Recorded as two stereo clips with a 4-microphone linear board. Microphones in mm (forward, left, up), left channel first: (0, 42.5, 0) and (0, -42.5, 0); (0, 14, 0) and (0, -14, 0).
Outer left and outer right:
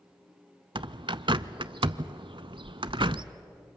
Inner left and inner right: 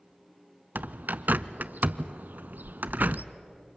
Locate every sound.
0.8 s a bird: 75° right (ahead or behind), 0.5 m